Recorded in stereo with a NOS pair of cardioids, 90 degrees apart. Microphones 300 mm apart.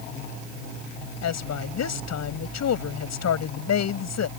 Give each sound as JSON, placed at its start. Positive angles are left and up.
{"t": 1.2, "sound": "a woman speaking", "azimuth_deg": 60}